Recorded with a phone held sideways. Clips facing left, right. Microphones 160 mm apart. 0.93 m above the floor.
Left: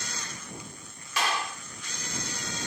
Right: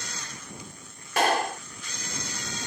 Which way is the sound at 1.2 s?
55° right (ahead or behind).